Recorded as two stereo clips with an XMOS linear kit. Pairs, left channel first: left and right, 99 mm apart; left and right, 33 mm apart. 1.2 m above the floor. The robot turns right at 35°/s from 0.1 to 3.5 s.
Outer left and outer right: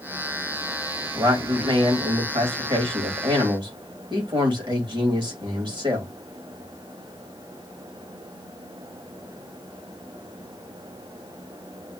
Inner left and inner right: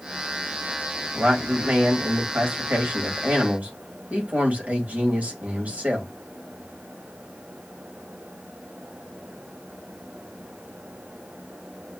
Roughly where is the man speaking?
Behind right.